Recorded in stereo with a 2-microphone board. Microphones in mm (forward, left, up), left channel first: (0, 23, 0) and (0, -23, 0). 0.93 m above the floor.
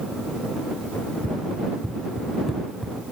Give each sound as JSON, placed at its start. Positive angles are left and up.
{"t": 0.9, "sound": "running footsteps", "side_deg": 45}